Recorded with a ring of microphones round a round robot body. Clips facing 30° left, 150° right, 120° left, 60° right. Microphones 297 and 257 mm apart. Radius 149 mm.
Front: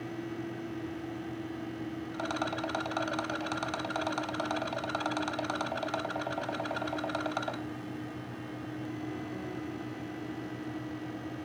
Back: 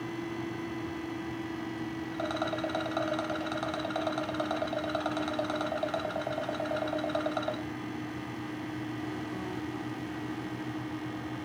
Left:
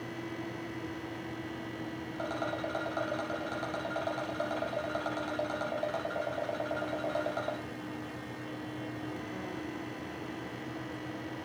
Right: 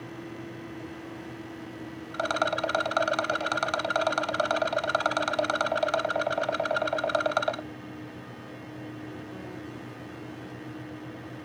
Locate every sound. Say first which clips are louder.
2.1 s a rattle: back 2 dB, right 7 dB; 45° right, 0.6 m